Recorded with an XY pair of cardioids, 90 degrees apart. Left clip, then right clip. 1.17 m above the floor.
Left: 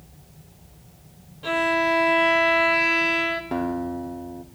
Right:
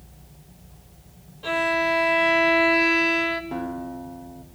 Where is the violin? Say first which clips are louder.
Left 1 dB; 10° left, 3.5 m.